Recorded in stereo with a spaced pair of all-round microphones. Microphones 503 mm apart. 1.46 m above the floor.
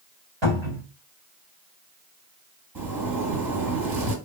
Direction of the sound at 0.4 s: 60° right (ahead or behind).